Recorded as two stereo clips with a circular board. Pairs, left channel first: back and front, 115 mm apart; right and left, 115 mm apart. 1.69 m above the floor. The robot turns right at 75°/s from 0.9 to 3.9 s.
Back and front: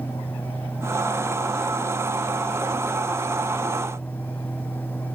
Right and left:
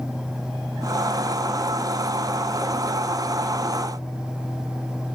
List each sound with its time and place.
Only background noise.